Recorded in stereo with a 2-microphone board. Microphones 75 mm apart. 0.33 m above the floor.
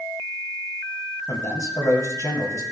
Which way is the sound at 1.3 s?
45° left (ahead or behind).